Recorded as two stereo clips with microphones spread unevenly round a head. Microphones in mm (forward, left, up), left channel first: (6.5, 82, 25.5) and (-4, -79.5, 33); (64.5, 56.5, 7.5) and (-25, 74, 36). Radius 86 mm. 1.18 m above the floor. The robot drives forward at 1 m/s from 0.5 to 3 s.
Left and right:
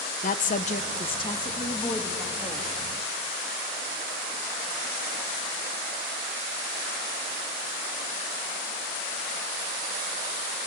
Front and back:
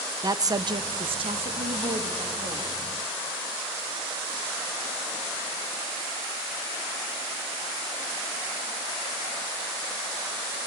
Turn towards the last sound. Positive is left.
turn(degrees=165)